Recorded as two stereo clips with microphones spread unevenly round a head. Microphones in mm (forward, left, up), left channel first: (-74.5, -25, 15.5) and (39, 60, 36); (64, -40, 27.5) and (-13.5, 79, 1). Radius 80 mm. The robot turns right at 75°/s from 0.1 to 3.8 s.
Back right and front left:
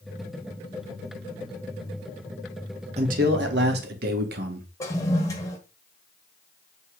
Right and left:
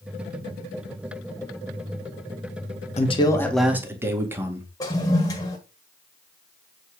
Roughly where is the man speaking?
Ahead.